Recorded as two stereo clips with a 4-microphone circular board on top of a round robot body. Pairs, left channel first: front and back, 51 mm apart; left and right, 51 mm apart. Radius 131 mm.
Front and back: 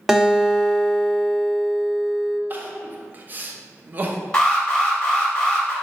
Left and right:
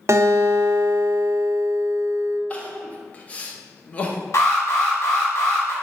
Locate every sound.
0.1 s a guitar: 100° right, 1.0 m
2.5 s crying: 145° left, 0.8 m
4.3 s an alarm: 75° left, 1.8 m